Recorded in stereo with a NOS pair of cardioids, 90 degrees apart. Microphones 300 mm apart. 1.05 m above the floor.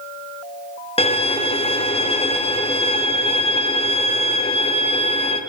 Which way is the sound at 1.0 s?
20° left.